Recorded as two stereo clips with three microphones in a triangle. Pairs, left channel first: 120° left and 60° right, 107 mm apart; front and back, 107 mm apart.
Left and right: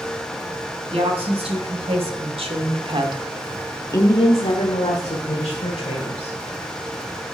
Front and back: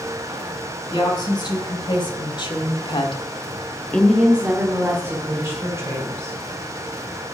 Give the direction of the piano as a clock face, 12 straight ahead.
I don't hear a piano.